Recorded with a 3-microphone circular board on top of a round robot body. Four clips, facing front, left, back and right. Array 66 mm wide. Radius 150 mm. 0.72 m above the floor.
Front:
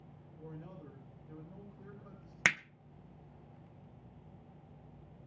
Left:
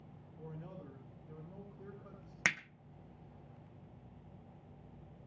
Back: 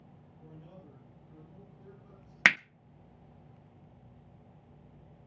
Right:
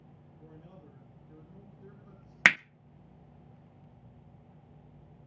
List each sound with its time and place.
0.4 s a man speaking: 60° left, 6 m
2.5 s hammering: 120° right, 0.6 m